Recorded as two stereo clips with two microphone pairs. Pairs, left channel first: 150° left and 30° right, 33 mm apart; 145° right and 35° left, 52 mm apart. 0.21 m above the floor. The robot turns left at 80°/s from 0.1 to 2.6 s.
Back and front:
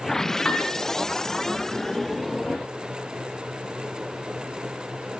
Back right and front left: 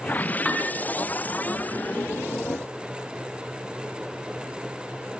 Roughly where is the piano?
Behind left.